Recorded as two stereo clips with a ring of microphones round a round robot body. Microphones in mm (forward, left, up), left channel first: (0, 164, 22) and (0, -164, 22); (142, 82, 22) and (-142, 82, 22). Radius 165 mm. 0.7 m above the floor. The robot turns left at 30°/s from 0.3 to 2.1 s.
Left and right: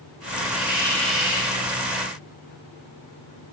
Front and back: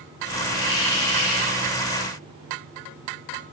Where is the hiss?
20° left, 2.5 m; by 1.6 s 15° right, 2.5 m.